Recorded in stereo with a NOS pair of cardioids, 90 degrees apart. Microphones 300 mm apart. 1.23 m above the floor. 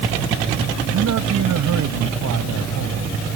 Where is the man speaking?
65° right.